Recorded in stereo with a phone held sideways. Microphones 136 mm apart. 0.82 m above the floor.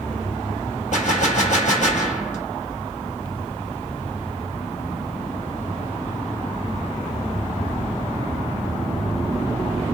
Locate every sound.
0.9 s a gunshot: 60° left (ahead or behind), 0.9 m